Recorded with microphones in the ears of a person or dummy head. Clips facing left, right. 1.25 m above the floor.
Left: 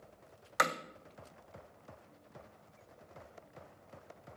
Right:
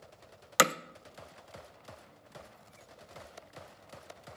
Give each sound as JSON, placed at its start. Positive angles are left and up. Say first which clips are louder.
{"t": 0.6, "sound": "hammering", "louder": "right 6 dB", "side_deg": -45, "distance_m": 0.5}